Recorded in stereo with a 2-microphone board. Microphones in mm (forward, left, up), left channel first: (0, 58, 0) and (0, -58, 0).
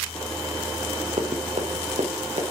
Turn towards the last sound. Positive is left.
turn(degrees=-90)